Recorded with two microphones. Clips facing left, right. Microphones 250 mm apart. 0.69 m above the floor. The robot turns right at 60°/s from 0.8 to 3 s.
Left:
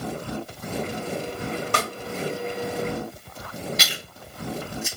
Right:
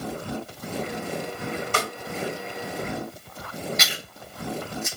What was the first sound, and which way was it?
A snare drum, 65° left (ahead or behind).